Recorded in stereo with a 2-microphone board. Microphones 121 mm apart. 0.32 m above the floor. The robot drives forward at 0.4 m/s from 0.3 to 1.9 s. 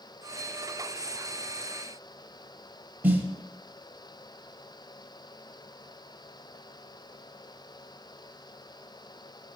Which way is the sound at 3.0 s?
15° right (ahead or behind).